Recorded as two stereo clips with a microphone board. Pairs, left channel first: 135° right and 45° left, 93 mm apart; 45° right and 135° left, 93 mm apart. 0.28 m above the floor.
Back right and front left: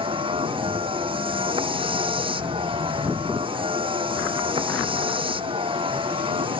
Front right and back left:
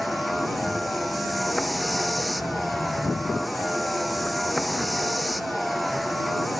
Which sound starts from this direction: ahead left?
A vehicle, at 0.0 s.